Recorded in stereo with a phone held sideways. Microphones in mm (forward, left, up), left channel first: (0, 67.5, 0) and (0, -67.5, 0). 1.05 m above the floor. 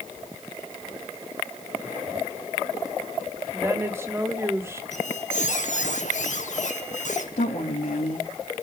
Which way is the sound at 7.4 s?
75° left (ahead or behind).